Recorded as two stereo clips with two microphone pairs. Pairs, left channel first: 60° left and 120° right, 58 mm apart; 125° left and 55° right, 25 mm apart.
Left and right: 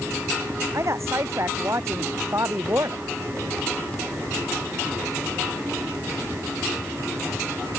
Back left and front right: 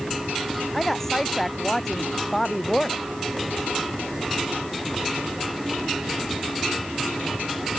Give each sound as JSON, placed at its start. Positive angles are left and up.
{"t": 0.7, "sound": "a woman speaking", "azimuth_deg": -155}